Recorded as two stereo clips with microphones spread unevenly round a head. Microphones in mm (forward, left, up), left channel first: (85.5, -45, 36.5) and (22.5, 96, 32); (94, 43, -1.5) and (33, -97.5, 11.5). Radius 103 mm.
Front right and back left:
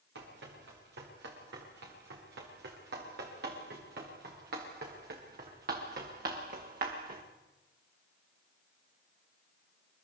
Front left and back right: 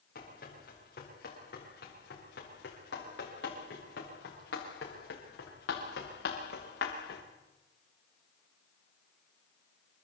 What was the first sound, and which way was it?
Running footsteps, 120° left.